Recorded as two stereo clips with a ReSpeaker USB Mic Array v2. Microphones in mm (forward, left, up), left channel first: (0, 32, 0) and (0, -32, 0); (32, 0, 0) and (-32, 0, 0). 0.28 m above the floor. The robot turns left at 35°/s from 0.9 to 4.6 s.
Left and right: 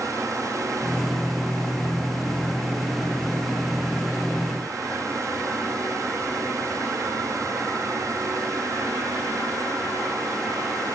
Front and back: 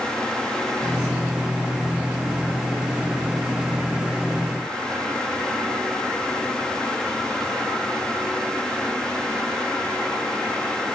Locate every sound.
Only background noise.